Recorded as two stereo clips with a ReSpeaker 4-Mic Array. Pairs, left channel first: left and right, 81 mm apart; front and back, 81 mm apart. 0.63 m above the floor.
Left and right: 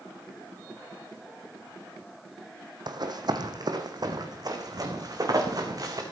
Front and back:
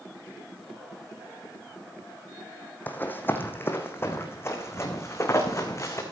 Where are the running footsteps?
65° right, 2 m; by 6.0 s 50° right, 3.5 m.